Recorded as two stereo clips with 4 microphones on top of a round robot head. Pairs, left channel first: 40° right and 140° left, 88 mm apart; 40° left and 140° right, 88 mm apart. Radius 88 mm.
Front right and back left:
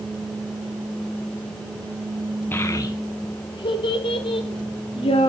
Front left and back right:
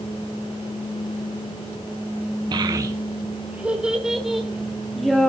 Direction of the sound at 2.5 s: 105° right.